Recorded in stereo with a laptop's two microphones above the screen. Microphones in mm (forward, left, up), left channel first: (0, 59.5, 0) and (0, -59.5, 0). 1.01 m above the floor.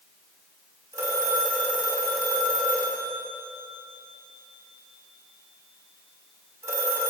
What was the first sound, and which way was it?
A phone ringing, 25° right (ahead or behind).